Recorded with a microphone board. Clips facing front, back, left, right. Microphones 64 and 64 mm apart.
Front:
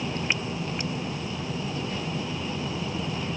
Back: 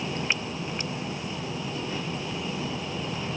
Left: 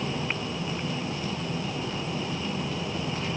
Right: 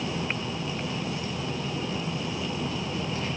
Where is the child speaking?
No child speaking in this recording.